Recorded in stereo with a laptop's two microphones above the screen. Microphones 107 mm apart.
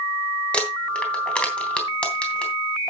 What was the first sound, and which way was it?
Crumpling, 10° left (ahead or behind).